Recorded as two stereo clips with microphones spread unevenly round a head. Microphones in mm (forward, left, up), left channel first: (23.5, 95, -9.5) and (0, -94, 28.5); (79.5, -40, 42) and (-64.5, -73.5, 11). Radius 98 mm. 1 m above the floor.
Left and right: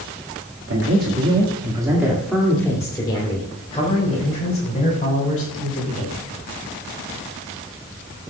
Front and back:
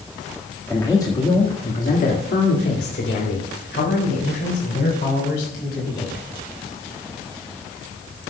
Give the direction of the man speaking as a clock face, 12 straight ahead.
2 o'clock.